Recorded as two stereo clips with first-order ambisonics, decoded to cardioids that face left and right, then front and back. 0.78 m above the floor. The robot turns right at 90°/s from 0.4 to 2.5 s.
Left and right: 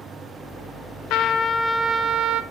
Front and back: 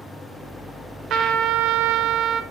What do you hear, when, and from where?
1.1 s a trumpet: 125° left, 1.4 m; by 2.4 s 115° right, 1.4 m